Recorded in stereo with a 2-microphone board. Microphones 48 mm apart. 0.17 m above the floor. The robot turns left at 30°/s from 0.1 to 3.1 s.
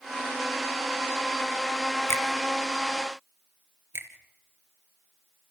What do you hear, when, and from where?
2.1 s a finger snap: 65° left (ahead or behind), 3 m
3.9 s a finger snap: 55° right (ahead or behind), 2.5 m